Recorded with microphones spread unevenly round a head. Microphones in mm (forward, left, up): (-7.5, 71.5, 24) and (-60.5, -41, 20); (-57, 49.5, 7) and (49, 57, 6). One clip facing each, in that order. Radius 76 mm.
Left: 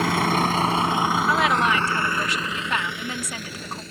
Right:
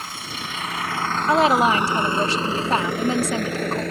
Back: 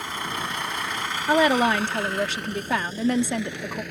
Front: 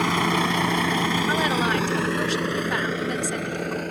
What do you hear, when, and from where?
0.0 s a vehicle: 20° left; by 3.9 s 65° right
1.3 s a woman speaking: 175° right